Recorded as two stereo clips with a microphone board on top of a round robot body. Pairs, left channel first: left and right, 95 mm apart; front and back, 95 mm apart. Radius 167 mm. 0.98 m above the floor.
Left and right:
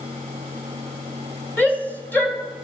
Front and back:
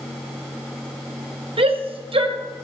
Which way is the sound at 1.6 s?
160° left.